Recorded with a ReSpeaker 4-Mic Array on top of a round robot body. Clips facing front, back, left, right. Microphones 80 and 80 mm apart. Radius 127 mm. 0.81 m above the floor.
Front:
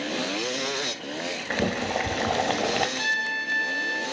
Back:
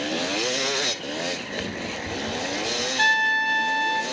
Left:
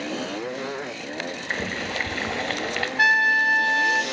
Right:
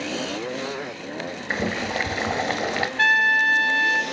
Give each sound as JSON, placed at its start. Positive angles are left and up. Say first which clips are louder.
{"t": 1.5, "sound": "boiling", "louder": "front 5 dB, right 5 dB", "azimuth_deg": -15, "distance_m": 1.7}
{"t": 3.0, "sound": "a trumpet", "louder": "back 7 dB, even", "azimuth_deg": 165, "distance_m": 2.5}